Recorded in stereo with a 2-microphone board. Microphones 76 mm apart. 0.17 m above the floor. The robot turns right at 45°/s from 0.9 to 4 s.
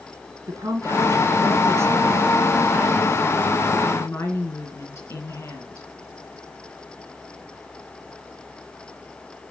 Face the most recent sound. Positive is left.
turn(degrees=50)